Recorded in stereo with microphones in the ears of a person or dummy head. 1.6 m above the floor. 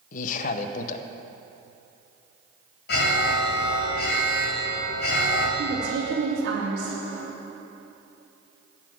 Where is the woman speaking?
70° right (ahead or behind), 3.5 m.